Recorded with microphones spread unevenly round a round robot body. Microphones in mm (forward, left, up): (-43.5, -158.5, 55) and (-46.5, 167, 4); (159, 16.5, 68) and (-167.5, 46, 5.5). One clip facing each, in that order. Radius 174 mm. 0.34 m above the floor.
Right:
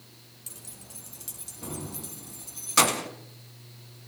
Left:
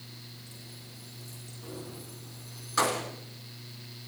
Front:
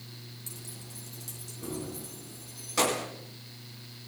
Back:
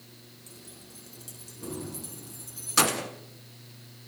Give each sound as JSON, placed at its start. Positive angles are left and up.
{"t": 0.5, "sound": "keys jangling", "azimuth_deg": -80, "distance_m": 3.5}